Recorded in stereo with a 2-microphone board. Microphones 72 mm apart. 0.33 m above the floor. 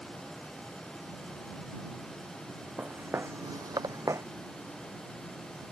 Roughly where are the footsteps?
Right.